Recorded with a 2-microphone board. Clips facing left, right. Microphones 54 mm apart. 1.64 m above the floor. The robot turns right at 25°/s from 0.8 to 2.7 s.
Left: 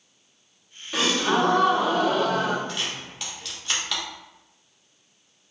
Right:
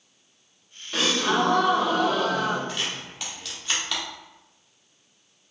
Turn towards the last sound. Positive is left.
turn(degrees=0)  # may be behind; listen again after turning